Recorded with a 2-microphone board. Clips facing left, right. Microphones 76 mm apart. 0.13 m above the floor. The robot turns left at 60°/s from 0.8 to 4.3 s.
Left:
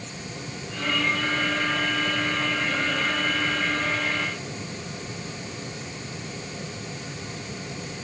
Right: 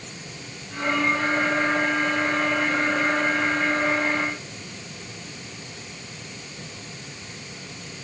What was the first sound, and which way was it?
Only background noise.